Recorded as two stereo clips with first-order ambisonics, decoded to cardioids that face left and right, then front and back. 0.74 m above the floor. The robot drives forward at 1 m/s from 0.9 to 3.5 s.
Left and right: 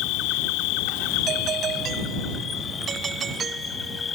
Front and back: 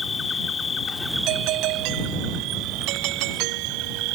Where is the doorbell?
150° right; by 4.2 s 155° right.